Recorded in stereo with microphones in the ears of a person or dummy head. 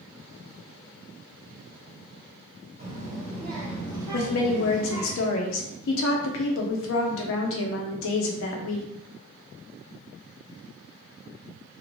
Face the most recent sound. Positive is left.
turn(degrees=70)  # may be behind; listen again after turning